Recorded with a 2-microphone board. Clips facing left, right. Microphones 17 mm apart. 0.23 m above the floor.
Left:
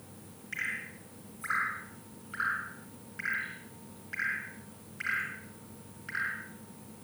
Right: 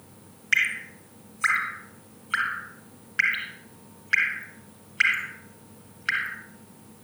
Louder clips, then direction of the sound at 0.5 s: Right 12 dB; 50° right (ahead or behind).